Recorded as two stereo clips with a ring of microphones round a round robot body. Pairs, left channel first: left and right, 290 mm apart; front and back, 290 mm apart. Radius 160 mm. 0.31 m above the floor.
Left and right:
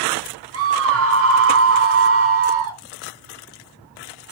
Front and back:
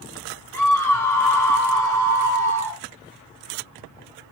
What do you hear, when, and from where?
0.5 s a scream: 80° right, 1.2 m